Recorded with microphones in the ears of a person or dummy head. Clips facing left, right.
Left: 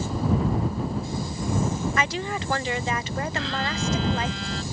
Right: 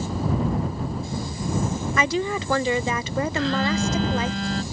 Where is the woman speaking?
80° right.